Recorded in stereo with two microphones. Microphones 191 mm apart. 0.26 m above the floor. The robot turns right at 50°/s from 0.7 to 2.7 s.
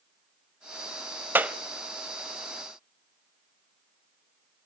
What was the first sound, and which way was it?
A clap, 10° right (ahead or behind).